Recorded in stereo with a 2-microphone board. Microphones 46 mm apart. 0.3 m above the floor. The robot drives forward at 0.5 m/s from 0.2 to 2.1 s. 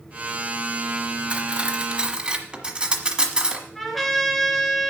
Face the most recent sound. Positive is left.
turn(degrees=5)  # may be behind; listen again after turning